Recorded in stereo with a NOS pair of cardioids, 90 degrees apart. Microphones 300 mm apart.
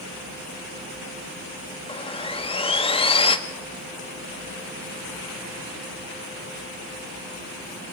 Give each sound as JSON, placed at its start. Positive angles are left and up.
{"t": 1.9, "sound": "sawing", "azimuth_deg": 20, "distance_m": 2.5}